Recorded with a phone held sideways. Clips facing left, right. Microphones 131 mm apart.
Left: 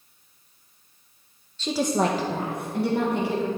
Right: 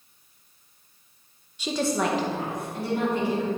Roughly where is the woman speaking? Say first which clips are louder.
Left 2 dB; centre.